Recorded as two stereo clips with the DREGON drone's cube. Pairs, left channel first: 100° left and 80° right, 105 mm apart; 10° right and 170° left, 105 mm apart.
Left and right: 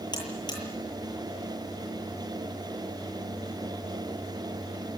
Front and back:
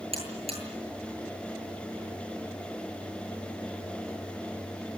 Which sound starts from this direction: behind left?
A buzzer, at 0.1 s.